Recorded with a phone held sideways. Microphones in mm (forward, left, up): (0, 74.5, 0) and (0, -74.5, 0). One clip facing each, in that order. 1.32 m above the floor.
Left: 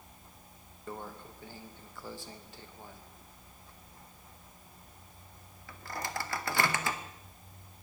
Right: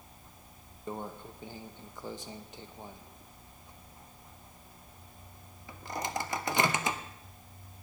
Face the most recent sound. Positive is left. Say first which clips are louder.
# right 3 dB
turn(degrees=-20)  # may be behind; listen again after turning